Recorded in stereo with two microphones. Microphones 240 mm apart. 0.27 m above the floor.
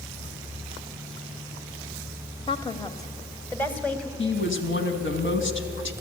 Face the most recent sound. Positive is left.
turn(degrees=55)  # may be behind; listen again after turning